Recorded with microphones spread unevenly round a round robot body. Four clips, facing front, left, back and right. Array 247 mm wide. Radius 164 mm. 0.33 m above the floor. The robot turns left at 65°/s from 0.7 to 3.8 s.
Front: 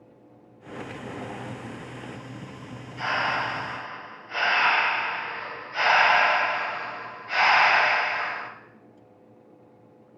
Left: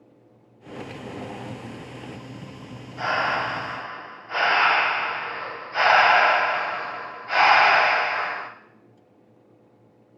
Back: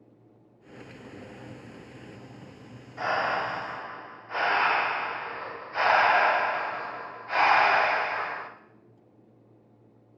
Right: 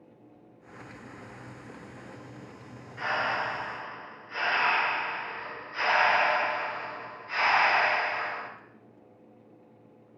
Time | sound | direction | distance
3.0 | breathing | 145° left | 1.6 m